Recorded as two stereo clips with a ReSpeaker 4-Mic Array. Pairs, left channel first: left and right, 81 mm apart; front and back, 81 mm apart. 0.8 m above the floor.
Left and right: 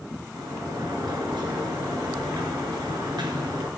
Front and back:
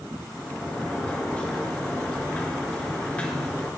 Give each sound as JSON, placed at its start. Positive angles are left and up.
{"t": 0.3, "sound": "a sliding door", "azimuth_deg": -70, "distance_m": 2.5}